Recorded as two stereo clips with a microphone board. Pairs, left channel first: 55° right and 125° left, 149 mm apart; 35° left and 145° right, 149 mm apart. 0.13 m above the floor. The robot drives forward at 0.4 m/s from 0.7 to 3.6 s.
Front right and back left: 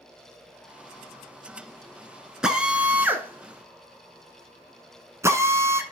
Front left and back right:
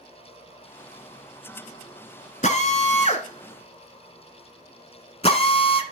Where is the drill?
40° left, 1.4 m; by 5.8 s 60° left, 1.2 m.